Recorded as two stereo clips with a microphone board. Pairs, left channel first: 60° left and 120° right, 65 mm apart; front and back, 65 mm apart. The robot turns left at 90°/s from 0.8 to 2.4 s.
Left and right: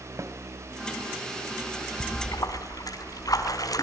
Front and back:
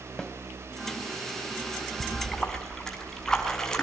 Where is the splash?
115° left, 5 m; by 3.8 s 80° left, 5 m.